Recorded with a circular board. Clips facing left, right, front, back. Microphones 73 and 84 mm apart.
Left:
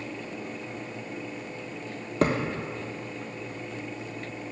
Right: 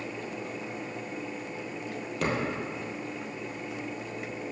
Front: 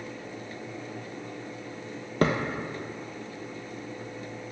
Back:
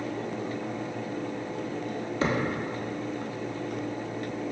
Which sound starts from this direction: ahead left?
A thud, at 2.2 s.